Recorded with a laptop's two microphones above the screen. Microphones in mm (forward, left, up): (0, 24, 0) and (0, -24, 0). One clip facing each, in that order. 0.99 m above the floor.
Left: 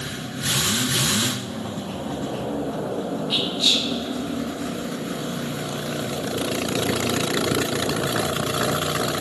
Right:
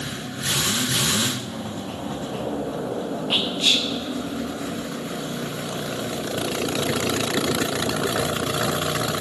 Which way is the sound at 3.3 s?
45° right (ahead or behind).